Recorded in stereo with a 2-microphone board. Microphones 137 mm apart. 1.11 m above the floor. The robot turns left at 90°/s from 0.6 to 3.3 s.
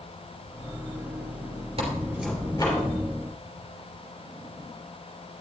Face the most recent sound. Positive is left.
turn(degrees=90)